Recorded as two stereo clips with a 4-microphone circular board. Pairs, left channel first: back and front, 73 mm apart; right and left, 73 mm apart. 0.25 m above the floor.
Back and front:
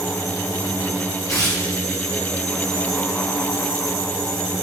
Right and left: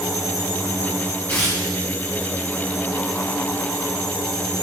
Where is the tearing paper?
155° right, 2.5 m.